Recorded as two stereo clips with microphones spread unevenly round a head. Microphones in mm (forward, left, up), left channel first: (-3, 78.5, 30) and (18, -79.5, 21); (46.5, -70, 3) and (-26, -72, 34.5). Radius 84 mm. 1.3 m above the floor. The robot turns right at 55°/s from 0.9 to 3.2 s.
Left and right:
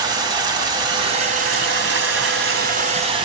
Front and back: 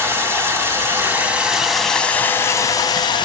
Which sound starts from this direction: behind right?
Running water, at 0.0 s.